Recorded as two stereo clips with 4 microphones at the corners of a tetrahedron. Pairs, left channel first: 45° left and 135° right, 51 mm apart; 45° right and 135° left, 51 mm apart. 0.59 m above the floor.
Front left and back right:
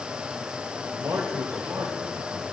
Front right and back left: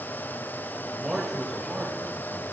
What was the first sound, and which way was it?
A man speaking, 135° right.